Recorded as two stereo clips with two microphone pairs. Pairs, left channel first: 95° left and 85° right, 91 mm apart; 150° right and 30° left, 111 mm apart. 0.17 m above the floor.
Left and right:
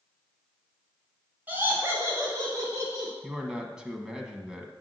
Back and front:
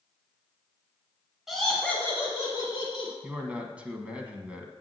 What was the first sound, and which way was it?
Laughter, 55° right.